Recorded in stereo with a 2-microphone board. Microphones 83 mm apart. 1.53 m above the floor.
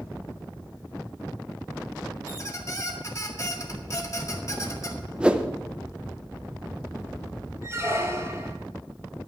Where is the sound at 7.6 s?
35° right (ahead or behind), 1.6 m.